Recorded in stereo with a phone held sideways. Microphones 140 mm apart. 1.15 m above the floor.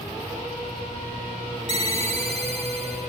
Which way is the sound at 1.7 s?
45° right (ahead or behind).